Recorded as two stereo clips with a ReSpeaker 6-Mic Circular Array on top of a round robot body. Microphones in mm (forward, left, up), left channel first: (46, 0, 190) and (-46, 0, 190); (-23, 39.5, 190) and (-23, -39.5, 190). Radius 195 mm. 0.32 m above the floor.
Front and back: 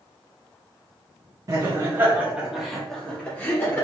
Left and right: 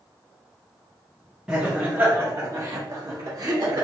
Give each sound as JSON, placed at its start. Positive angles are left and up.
{"t": 1.5, "sound": "laughter", "azimuth_deg": -160, "distance_m": 1.0}